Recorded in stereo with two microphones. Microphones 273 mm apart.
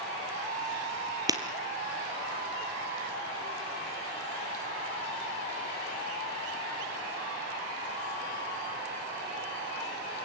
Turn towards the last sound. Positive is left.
turn(degrees=-15)  # may be behind; listen again after turning